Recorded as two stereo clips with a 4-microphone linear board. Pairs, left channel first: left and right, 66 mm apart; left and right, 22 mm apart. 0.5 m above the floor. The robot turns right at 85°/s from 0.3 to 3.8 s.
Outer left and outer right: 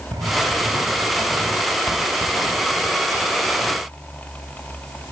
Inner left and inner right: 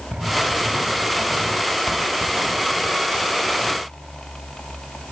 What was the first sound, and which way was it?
Writing, 70° right (ahead or behind).